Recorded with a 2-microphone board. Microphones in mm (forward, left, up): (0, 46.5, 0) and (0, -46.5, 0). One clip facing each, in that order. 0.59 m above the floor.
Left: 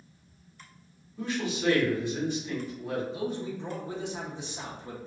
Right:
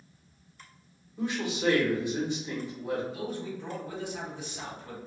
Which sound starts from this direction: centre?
A man speaking, at 1.2 s.